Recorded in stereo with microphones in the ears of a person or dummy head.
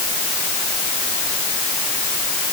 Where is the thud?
I don't hear a thud.